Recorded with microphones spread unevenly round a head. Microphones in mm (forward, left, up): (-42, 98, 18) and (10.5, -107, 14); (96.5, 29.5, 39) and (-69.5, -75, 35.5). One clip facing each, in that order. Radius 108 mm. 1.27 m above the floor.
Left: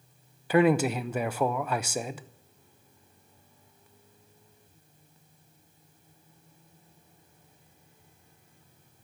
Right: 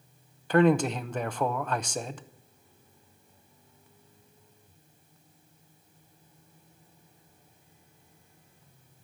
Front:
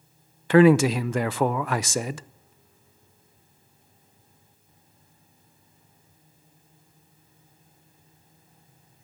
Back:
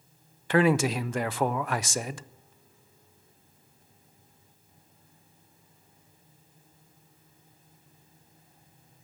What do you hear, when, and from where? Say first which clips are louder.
0.5 s a man speaking: even, front 7 dB; 20° left, 0.5 m